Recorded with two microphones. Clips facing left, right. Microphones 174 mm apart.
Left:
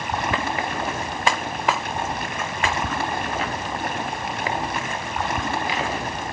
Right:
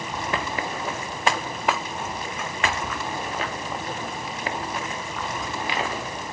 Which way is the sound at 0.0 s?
70° left (ahead or behind).